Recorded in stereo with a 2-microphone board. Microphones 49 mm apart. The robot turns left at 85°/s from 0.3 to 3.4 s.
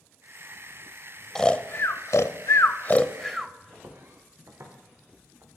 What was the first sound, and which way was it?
Snoring, 10° left (ahead or behind).